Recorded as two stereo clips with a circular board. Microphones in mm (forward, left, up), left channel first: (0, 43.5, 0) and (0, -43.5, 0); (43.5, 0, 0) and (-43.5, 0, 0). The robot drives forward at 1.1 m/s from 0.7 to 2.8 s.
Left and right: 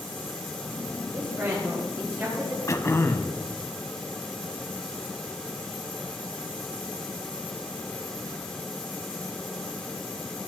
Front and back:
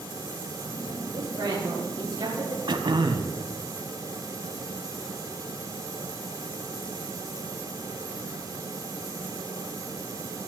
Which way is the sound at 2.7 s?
145° left.